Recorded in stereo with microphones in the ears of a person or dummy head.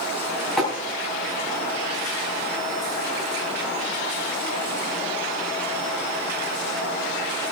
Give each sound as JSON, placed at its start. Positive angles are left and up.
{"t": 0.6, "sound": "tapping", "side_deg": 5, "distance_m": 5.0}